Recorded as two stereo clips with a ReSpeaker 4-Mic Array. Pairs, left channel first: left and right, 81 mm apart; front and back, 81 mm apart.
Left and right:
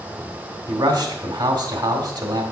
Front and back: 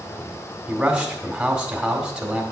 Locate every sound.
0.7 s a man speaking: 100° right, 1.8 m